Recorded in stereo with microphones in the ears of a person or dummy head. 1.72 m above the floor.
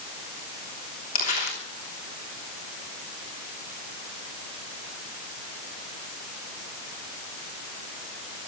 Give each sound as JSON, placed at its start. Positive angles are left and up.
{"t": 1.1, "sound": "crumpling", "side_deg": 45, "distance_m": 3.0}